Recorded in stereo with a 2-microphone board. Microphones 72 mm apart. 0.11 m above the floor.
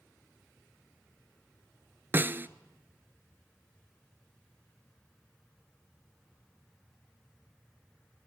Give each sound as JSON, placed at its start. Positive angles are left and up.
{"t": 2.1, "sound": "a snare drum", "side_deg": -30, "distance_m": 0.6}